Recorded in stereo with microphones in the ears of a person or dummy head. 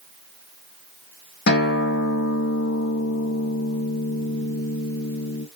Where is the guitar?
60° left (ahead or behind), 1.9 m.